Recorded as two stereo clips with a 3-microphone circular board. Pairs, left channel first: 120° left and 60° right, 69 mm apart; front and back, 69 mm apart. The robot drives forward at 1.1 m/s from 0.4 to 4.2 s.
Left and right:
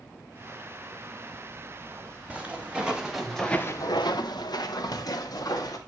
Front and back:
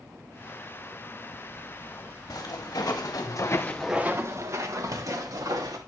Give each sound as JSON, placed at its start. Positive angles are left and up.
{"t": 2.3, "sound": "footsteps", "azimuth_deg": 10, "distance_m": 3.0}